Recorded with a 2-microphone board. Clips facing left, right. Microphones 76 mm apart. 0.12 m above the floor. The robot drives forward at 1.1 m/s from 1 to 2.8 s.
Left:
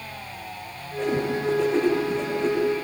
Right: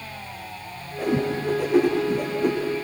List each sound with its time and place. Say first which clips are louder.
1.0 s a whoosh: right 1 dB; 5° right (ahead or behind), 9.5 m